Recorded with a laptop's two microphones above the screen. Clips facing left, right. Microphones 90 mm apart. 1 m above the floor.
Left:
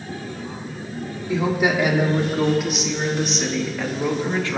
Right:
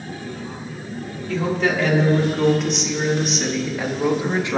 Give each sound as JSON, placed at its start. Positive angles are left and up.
{"t": 1.3, "sound": "a woman speaking", "side_deg": 15, "distance_m": 3.5}